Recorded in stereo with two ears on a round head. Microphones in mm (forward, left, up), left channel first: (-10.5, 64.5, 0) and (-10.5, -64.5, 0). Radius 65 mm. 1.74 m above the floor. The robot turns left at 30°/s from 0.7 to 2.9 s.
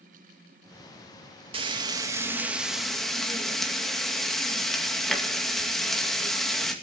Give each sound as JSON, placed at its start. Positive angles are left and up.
{"t": 1.5, "sound": "frying", "azimuth_deg": -140, "distance_m": 2.5}